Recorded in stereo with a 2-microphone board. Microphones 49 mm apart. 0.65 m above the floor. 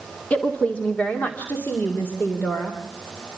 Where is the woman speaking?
30° left (ahead or behind), 1.7 m; by 2.8 s 45° left (ahead or behind), 2.5 m.